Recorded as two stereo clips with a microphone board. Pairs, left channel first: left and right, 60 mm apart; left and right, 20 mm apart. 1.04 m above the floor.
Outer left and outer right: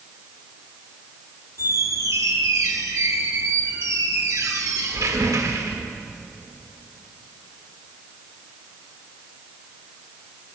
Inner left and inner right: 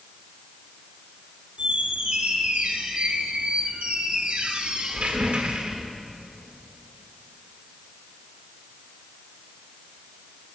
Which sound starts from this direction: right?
A squeak, at 1.6 s.